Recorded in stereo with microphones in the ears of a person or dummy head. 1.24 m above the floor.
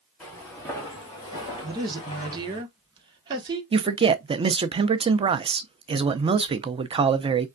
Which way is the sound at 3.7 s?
25° right (ahead or behind).